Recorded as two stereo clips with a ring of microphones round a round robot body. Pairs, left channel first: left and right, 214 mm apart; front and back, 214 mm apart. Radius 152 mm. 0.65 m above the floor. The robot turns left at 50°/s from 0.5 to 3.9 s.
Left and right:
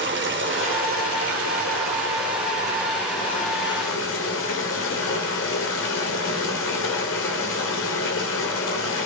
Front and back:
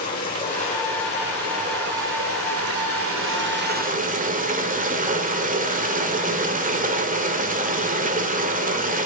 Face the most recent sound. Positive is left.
turn(degrees=130)